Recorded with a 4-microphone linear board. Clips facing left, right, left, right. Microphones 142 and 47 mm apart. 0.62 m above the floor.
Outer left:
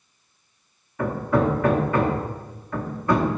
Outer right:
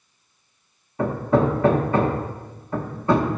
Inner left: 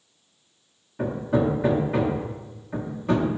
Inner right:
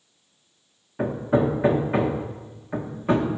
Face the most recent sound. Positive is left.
turn(degrees=-30)  # may be behind; listen again after turning